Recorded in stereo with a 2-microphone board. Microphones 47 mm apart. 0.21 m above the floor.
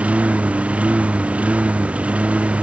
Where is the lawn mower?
25° right (ahead or behind).